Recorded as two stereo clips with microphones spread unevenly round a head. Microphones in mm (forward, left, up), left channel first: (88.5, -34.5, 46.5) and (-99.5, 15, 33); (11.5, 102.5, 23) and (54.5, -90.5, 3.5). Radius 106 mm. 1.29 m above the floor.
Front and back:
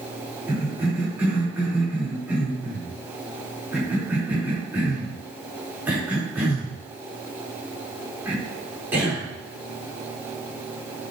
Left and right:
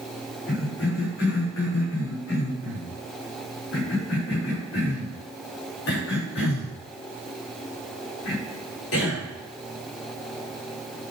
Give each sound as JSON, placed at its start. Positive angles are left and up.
{"t": 0.5, "sound": "a cough", "azimuth_deg": 85, "distance_m": 5.0}